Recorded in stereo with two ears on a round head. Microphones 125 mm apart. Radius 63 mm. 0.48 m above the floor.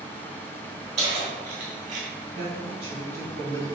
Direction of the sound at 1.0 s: 50° right (ahead or behind).